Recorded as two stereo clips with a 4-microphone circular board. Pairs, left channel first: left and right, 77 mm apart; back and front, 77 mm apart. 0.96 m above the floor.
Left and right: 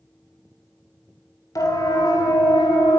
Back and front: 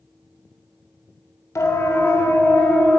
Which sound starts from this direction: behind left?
A siren, at 1.6 s.